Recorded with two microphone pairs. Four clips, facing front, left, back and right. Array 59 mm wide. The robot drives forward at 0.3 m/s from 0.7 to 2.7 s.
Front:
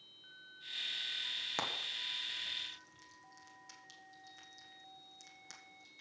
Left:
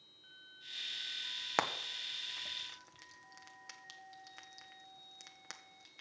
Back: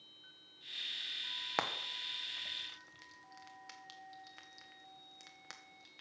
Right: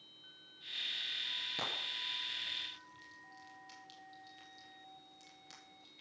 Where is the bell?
I don't hear a bell.